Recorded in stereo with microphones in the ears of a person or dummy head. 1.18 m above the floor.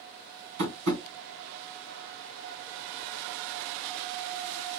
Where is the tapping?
65° right (ahead or behind), 2.5 m.